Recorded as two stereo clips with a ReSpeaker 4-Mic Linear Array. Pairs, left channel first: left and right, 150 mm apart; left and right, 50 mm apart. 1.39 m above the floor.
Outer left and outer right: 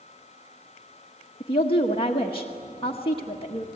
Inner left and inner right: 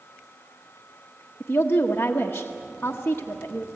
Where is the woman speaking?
35° left (ahead or behind), 1.4 m.